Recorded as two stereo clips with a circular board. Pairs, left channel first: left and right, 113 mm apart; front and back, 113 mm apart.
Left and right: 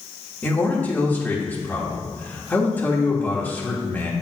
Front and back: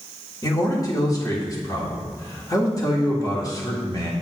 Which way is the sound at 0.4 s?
25° left.